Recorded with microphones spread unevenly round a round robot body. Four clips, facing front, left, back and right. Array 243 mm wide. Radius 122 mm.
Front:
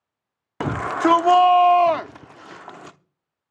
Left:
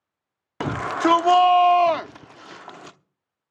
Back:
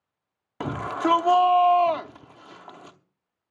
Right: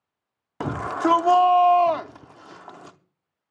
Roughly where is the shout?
Ahead.